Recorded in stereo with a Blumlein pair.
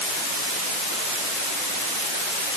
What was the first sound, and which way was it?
Only background noise.